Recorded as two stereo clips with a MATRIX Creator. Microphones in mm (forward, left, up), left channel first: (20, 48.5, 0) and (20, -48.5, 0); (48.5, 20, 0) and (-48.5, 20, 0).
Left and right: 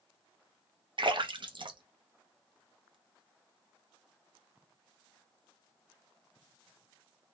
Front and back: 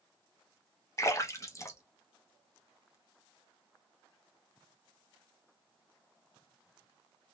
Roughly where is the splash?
Ahead right.